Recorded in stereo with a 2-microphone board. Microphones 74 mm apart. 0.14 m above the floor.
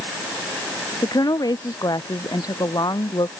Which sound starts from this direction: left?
A woman speaking, at 1.0 s.